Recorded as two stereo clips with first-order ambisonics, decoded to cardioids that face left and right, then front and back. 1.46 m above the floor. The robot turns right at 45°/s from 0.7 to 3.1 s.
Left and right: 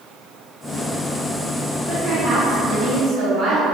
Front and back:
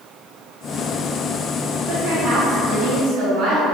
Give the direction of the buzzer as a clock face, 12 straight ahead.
No buzzer in this recording.